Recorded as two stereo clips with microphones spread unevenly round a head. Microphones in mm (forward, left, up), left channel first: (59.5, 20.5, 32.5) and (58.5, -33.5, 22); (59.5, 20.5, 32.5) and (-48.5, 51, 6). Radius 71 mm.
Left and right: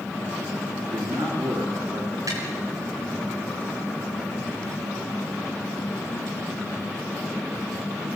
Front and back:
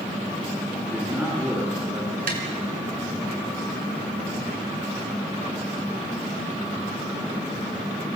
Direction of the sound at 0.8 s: 115° right.